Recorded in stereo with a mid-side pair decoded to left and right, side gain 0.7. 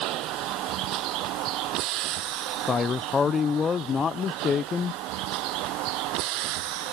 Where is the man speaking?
30° left.